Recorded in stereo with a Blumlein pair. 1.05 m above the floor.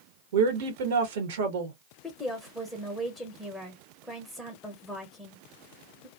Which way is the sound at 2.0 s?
5° left.